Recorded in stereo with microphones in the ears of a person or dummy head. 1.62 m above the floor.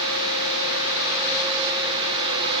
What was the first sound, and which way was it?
Only background noise.